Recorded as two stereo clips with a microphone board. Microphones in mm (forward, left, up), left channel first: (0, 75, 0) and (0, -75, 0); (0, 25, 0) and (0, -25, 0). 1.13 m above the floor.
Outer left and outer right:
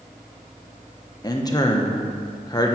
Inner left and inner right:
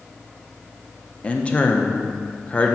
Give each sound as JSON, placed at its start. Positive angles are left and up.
{"t": 1.2, "sound": "a man speaking", "side_deg": 25, "distance_m": 1.0}